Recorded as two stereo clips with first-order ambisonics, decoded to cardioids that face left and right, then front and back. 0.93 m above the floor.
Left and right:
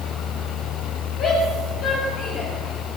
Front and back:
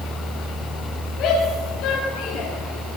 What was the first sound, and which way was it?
A shout, 45° left.